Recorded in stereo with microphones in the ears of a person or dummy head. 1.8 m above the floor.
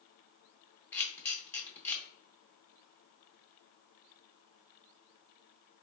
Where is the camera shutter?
15° left (ahead or behind), 0.6 m.